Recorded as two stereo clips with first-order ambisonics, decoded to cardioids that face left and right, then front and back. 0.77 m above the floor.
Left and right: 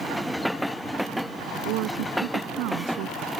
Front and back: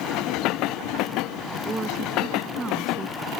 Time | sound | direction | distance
1.6 | a woman speaking | 100° right | ?